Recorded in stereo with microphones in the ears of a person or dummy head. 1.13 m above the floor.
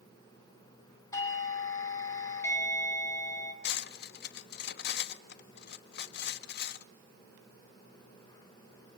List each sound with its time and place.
1.1 s a doorbell: 15° left (ahead or behind), 2.5 m
3.6 s cutlery clinking: 65° left (ahead or behind), 0.8 m